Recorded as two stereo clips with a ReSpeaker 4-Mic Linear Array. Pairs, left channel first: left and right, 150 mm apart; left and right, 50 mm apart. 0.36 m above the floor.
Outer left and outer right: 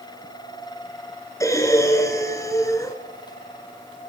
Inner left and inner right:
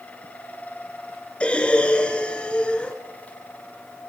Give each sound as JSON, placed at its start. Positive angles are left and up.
{"t": 1.4, "sound": "breathing", "side_deg": 20, "distance_m": 3.5}